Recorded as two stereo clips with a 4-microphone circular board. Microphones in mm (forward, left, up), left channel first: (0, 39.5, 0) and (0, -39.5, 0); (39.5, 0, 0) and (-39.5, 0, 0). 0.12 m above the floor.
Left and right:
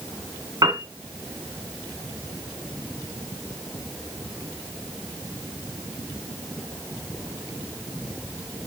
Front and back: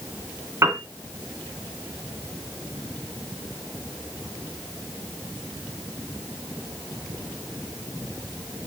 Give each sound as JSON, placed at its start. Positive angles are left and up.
{"t": 0.6, "sound": "a piano", "azimuth_deg": -120, "distance_m": 2.0}